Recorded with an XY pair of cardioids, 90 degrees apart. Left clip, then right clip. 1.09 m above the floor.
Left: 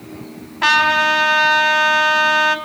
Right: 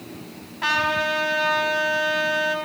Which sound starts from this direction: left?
A trumpet, at 0.6 s.